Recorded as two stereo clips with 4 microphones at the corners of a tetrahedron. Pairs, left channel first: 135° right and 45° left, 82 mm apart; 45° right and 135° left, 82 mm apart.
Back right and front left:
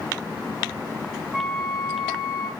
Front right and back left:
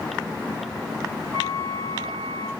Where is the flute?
115° left, 1.7 m.